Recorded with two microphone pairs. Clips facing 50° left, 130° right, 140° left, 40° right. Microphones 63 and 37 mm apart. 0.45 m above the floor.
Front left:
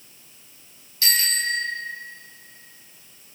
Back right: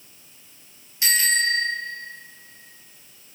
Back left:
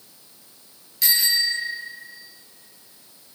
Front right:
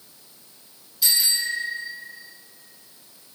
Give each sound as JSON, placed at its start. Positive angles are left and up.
{"t": 1.0, "sound": "a bicycle bell", "azimuth_deg": 160, "distance_m": 6.0}